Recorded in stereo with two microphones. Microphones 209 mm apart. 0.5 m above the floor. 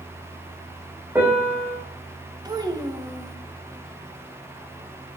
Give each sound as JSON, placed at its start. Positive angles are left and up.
{"t": 1.1, "sound": "a piano", "side_deg": -10, "distance_m": 6.5}
{"t": 2.5, "sound": "a child speaking", "side_deg": -20, "distance_m": 1.6}